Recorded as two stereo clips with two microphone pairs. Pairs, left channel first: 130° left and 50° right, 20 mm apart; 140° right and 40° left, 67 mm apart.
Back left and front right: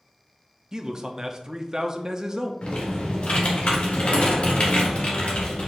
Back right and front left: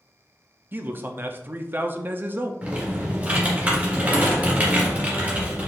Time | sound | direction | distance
0.7 | a man speaking | straight ahead | 0.5 m
2.6 | typing on a keyboard | 105° left | 1.4 m